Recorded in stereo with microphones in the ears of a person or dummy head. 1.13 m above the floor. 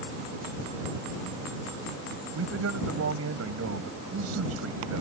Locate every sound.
2.4 s a man speaking: 85° right